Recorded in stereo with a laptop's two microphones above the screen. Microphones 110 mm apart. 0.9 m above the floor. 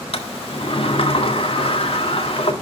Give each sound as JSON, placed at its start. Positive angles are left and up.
{"t": 0.1, "sound": "a sliding door", "side_deg": 60, "distance_m": 1.6}